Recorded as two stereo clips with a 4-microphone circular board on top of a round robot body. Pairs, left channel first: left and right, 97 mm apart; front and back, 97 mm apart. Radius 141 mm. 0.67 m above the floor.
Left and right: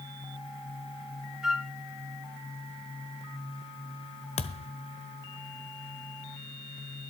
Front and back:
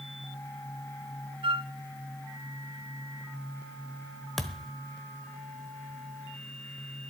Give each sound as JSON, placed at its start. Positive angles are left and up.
{"t": 1.4, "sound": "a flute", "azimuth_deg": -175, "distance_m": 1.3}
{"t": 4.4, "sound": "a thud", "azimuth_deg": 85, "distance_m": 1.2}